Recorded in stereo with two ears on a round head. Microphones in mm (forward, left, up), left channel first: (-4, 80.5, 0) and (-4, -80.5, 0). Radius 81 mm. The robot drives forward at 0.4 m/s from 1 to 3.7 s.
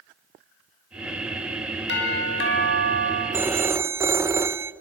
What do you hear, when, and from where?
1.9 s a doorbell: 70° left (ahead or behind), 4 m
3.3 s a phone ringing: 15° right (ahead or behind), 0.6 m